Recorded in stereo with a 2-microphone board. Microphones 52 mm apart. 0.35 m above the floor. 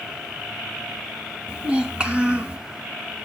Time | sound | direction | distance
1.5 | a child speaking | 20° right (ahead or behind) | 2 m